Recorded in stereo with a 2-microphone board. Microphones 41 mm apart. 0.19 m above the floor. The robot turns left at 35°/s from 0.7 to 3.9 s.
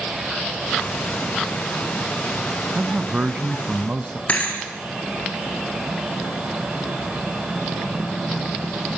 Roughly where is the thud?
Left.